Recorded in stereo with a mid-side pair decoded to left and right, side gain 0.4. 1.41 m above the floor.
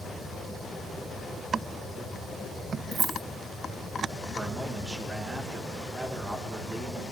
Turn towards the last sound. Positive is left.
turn(degrees=-30)